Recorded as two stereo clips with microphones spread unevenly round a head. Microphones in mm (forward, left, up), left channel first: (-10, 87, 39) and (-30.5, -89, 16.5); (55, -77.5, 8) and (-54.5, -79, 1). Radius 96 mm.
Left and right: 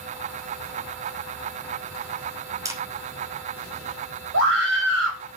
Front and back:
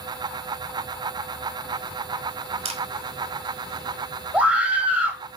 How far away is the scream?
About 6 m.